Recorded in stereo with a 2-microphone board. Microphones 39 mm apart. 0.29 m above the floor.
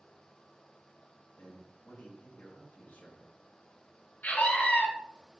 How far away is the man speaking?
About 3 m.